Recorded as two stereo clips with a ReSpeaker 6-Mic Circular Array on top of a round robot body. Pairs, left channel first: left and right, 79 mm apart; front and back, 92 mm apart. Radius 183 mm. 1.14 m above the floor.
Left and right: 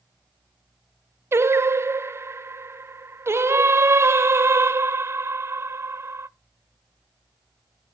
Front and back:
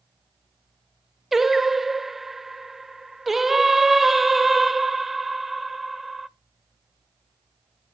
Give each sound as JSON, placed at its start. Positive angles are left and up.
{"t": 1.3, "sound": "singing", "azimuth_deg": -95, "distance_m": 0.7}